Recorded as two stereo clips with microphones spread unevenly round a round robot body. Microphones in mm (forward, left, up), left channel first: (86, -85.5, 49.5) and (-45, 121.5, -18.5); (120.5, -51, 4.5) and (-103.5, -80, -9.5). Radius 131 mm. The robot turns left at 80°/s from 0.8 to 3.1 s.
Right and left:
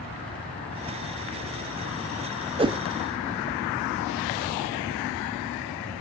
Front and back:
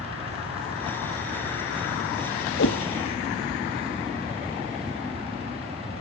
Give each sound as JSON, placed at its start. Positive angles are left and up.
{"t": 2.6, "sound": "a whoosh", "azimuth_deg": 60, "distance_m": 0.5}